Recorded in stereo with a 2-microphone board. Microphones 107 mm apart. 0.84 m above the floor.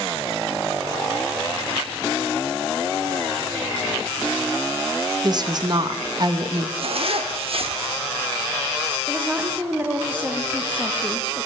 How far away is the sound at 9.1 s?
About 1.0 m.